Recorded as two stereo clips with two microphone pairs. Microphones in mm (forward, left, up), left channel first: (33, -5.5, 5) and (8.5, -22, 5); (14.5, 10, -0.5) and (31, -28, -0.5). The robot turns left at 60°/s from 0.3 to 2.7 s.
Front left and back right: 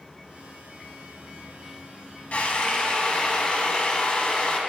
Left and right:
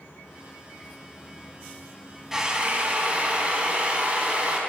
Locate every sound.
2.3 s a drill: 10° left, 0.8 m; by 4.6 s 15° right, 0.8 m